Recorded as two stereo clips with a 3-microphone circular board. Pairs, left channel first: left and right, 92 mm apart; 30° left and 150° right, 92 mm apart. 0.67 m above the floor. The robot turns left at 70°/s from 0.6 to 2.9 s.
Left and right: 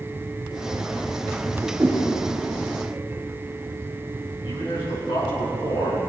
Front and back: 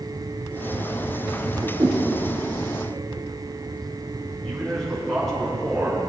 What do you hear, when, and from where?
1.8 s a whoosh: 155° right, 5 m; by 2.0 s 170° right, 5 m
4.4 s a man speaking: 115° left, 5 m